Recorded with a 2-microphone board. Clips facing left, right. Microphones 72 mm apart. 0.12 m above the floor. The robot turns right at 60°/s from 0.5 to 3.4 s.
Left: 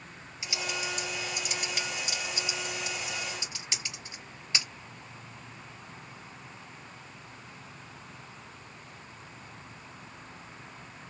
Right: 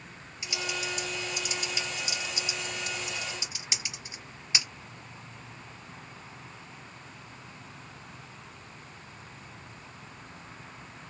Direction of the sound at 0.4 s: 20° left (ahead or behind).